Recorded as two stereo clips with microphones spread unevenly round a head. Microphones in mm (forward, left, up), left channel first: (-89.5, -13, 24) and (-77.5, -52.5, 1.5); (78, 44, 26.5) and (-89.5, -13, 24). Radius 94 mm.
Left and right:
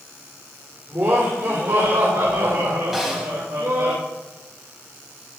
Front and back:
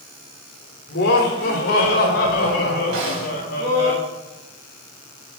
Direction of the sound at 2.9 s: 165° right.